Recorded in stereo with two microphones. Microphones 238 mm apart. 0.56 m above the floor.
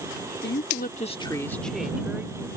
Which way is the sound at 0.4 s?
50° left (ahead or behind).